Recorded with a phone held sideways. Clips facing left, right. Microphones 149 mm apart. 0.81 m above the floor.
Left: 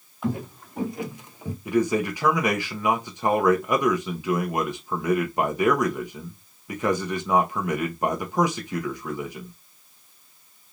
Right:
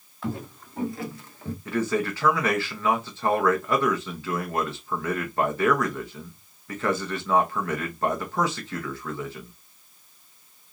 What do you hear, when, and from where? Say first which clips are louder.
0.2 s footsteps: left 4 dB; 15° left (ahead or behind), 1.7 m
1.6 s a man speaking: left 3 dB; 15° left (ahead or behind), 0.9 m